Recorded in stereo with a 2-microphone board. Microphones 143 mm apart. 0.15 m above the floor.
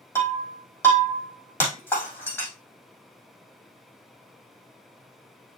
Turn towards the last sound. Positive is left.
turn(degrees=15)  # may be behind; listen again after turning